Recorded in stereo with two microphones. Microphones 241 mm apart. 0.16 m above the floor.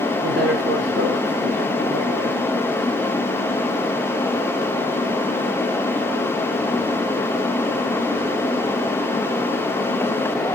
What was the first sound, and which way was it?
A woman speaking, 75° right (ahead or behind).